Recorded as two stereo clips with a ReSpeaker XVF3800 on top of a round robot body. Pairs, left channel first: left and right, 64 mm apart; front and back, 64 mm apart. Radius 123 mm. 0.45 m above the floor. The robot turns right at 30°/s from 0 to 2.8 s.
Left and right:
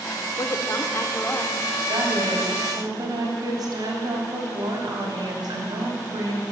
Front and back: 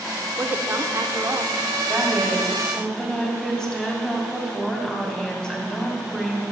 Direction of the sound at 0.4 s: 120° left.